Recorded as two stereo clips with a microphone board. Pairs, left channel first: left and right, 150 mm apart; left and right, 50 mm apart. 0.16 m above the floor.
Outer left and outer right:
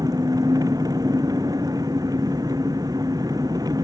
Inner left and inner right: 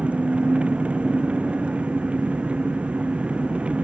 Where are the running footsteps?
No running footsteps in this recording.